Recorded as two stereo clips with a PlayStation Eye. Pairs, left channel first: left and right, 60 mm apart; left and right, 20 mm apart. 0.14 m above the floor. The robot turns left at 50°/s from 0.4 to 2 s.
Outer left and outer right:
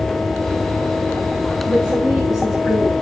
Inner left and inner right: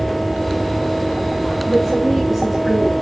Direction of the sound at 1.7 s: 15° right (ahead or behind).